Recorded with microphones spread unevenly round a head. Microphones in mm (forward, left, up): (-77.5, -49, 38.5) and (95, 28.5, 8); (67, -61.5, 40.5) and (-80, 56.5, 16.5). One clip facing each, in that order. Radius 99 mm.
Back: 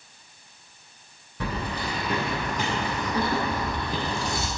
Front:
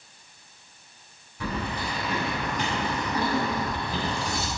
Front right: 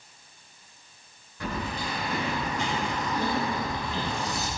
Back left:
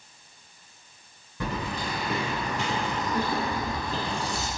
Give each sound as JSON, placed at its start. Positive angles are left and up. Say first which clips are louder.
{"t": 1.4, "sound": "keys jangling", "louder": "even, back left 1 dB", "azimuth_deg": 165, "distance_m": 3.0}